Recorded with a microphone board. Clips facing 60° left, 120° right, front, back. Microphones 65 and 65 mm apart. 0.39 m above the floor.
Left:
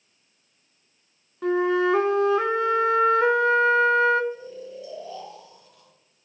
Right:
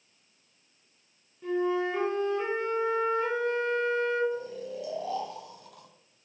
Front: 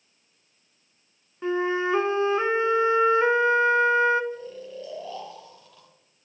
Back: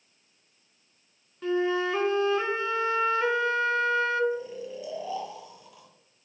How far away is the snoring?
About 2.5 m.